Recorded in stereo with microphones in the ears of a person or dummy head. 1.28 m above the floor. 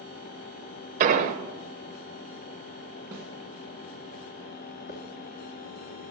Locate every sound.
1.0 s an explosion: 45° right (ahead or behind), 0.8 m
3.1 s a snare drum: 15° right (ahead or behind), 1.9 m
4.9 s a hiss: 45° left (ahead or behind), 1.4 m